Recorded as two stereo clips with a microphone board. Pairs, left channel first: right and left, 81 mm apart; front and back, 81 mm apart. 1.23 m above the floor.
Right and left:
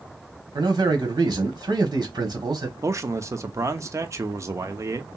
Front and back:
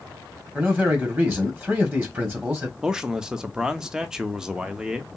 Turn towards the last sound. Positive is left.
turn(degrees=105)